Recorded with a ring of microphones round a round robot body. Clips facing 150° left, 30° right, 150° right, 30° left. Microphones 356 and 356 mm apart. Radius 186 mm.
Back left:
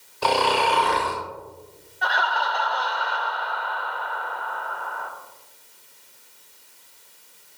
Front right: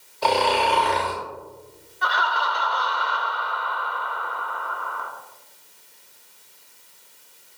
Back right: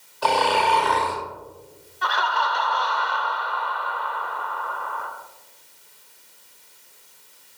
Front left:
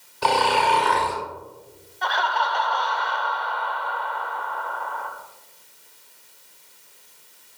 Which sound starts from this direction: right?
Laughter, at 2.0 s.